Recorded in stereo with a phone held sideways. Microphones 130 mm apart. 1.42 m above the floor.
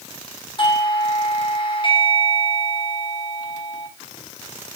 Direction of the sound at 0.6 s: 40° left (ahead or behind).